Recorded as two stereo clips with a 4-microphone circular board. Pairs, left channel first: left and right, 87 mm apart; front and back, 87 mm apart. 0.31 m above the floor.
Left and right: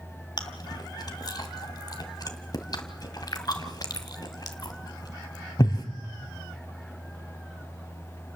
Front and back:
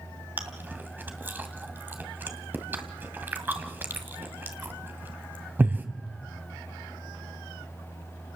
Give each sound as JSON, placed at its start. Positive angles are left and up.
{"t": 0.4, "sound": "chewing", "azimuth_deg": 115, "distance_m": 1.9}